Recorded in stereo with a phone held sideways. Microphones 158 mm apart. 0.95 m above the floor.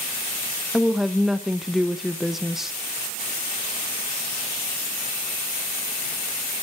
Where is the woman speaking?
Centre (ahead or behind), 0.6 m.